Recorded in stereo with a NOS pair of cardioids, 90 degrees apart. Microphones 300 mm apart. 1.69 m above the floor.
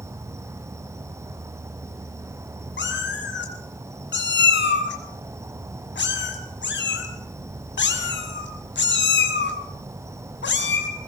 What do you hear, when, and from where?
0.0 s an insect: 10° right, 0.7 m
2.8 s a cat meowing: 40° left, 5.5 m